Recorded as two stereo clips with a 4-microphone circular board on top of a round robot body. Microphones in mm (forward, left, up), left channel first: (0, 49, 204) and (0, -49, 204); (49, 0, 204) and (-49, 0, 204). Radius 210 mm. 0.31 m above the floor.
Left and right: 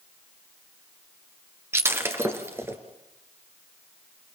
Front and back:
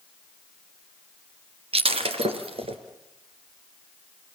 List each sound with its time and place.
1.7 s breaking glass: 155° right, 2.5 m